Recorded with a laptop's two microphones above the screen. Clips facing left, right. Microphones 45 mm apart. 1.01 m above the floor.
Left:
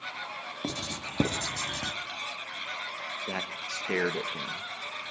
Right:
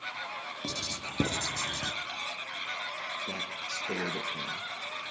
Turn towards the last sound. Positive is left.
turn(degrees=55)  # may be behind; listen again after turning